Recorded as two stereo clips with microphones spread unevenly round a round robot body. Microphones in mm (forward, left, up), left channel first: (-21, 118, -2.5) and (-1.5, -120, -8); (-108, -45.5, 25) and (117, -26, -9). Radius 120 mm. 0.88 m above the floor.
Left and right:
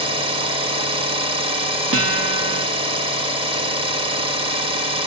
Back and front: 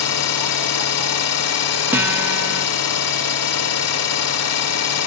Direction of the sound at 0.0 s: 155° right.